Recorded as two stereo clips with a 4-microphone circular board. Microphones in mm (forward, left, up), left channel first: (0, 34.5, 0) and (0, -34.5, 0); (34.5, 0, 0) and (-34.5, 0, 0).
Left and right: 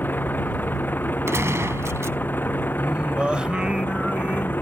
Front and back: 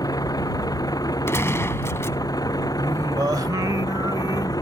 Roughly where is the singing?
Behind.